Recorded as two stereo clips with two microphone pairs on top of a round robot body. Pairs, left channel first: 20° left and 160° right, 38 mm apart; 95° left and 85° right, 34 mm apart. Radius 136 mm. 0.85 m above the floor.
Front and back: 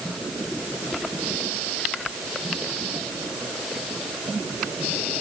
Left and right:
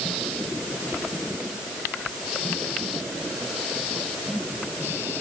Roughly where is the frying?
No frying in this recording.